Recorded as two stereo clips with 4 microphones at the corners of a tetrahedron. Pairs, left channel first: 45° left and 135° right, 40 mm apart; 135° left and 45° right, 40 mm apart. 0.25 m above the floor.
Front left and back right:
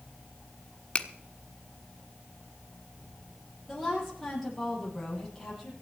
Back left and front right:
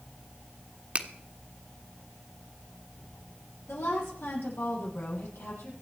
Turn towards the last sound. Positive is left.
turn(degrees=125)